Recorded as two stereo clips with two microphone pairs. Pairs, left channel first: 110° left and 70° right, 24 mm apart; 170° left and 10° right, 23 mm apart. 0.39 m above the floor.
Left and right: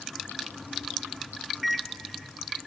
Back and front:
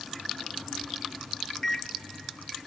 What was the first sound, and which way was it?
A microwave, 145° right.